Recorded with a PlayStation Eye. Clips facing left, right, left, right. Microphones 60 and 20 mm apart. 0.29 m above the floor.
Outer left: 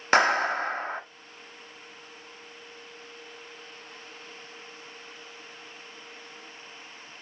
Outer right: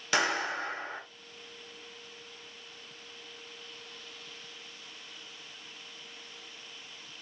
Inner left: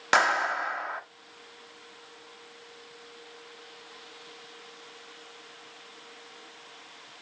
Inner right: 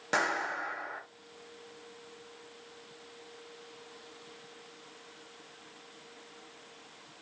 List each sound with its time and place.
0.1 s a clap: 50° left (ahead or behind), 0.9 m